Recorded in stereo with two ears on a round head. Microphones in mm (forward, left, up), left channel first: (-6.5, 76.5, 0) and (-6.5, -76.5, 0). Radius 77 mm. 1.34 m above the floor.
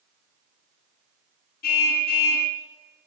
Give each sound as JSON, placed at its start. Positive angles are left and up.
{"t": 1.6, "sound": "a car horn", "side_deg": 60, "distance_m": 4.5}